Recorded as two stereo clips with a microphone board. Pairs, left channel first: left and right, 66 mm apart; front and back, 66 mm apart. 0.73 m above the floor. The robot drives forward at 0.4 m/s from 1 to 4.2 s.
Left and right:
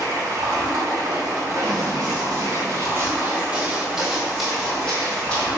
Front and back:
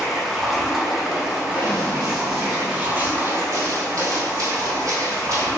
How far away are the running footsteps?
About 1.6 m.